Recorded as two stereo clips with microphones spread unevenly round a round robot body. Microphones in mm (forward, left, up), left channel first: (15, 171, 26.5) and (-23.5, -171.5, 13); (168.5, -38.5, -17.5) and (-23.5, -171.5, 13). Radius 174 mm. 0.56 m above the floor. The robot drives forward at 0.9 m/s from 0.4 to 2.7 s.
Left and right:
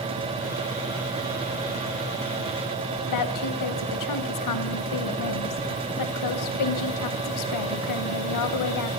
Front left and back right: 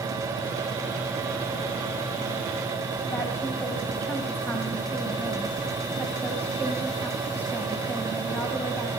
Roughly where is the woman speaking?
Behind left.